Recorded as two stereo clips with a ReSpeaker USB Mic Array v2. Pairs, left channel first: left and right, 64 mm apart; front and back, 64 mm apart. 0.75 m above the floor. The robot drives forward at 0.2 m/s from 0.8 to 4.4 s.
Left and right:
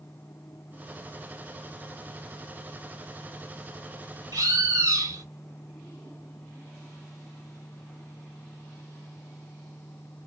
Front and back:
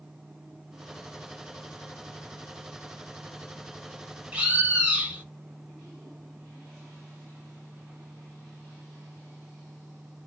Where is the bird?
105° right, 0.9 m; by 5.2 s 110° right, 0.9 m.